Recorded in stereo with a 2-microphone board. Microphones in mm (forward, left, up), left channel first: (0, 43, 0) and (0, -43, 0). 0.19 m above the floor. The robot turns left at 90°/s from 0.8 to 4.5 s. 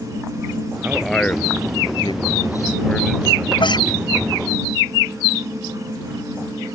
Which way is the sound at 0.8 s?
20° right (ahead or behind).